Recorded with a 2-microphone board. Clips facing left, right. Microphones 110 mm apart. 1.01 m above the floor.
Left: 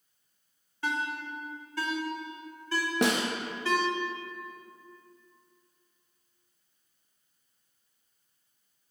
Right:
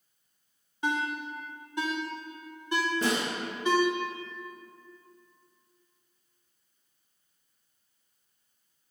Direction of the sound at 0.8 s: 20° right (ahead or behind).